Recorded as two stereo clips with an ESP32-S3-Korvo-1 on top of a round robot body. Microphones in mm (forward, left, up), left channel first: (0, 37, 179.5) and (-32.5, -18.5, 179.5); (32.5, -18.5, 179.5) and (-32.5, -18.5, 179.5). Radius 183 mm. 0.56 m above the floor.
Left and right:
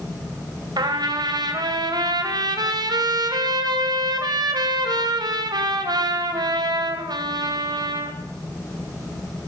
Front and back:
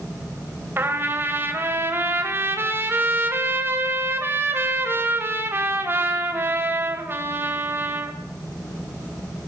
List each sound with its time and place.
0.8 s a trumpet: 125° right, 2.5 m